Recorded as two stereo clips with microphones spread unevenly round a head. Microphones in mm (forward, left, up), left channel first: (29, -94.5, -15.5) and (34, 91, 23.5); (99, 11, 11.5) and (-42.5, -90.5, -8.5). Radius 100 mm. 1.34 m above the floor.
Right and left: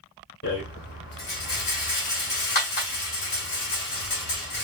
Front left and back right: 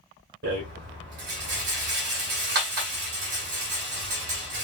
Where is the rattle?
140° right, 1.7 m.